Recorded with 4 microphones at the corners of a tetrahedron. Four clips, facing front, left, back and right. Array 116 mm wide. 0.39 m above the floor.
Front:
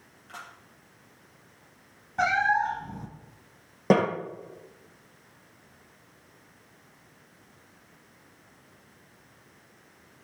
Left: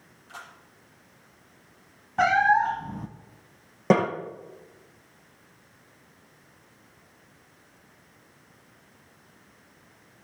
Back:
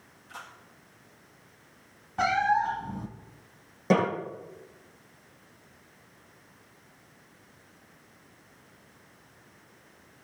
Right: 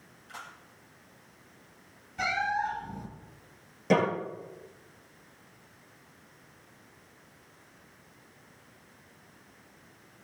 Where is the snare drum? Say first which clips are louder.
Left 4 dB, front 2 dB; 50° left, 8 m.